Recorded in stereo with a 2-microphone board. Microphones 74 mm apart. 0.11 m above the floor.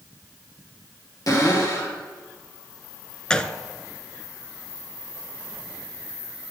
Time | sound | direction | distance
1.3 | a cupboard door | 50° left (ahead or behind) | 3 m
3.3 | a gunshot | 10° left (ahead or behind) | 0.6 m